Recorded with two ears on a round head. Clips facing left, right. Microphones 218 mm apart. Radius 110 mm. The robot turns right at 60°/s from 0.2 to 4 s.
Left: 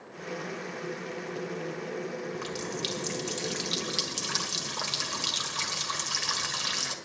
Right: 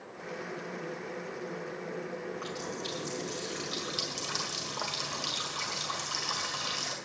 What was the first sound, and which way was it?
A running tap, 45° left.